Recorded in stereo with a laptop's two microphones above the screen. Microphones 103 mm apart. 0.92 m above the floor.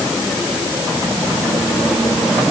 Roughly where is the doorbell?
No doorbell in this recording.